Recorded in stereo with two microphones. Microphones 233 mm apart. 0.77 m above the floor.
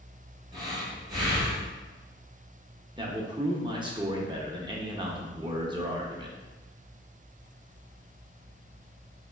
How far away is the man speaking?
About 0.7 m.